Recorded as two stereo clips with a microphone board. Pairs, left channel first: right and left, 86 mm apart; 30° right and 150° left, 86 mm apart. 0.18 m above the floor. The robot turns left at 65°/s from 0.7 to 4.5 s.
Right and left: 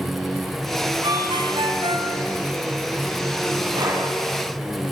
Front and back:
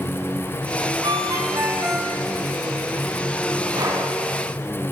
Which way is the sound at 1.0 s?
120° left.